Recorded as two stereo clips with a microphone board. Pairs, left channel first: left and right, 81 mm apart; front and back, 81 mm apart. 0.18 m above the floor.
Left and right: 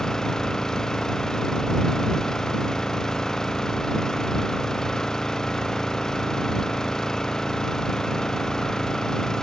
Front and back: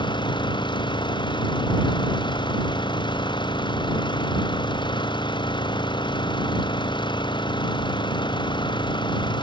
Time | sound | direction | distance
0.0 | an engine running | 10° left | ?